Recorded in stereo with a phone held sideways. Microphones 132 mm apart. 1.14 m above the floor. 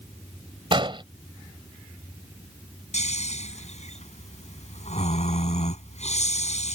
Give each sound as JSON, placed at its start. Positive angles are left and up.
{"t": 0.7, "sound": "an explosion", "side_deg": -40}
{"t": 2.9, "sound": "snoring", "side_deg": 60}